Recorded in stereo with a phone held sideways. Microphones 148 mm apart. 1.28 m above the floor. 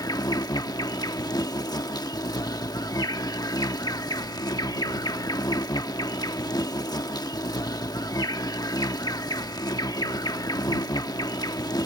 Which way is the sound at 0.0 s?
25° left (ahead or behind).